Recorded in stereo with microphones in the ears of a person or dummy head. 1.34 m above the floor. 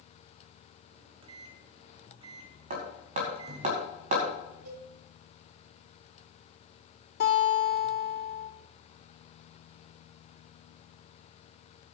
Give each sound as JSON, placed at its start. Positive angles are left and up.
{"t": 0.9, "sound": "a microwave", "side_deg": -30, "distance_m": 1.3}
{"t": 2.7, "sound": "hammering", "side_deg": -45, "distance_m": 5.0}
{"t": 4.7, "sound": "a cowbell", "side_deg": -85, "distance_m": 7.0}
{"t": 7.2, "sound": "a guitar", "side_deg": 55, "distance_m": 3.5}